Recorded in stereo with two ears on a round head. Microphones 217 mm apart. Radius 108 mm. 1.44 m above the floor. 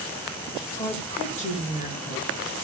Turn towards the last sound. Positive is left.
turn(degrees=30)  # may be behind; listen again after turning